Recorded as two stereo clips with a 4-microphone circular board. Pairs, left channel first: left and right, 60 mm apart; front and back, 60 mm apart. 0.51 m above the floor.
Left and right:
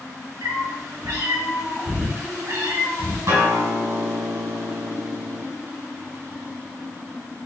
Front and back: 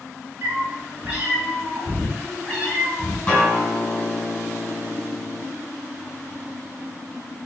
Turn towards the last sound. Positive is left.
turn(degrees=-75)